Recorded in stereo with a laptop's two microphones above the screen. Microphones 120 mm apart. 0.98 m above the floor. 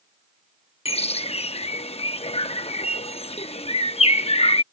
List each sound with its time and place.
0.8 s a bird: 60° left (ahead or behind)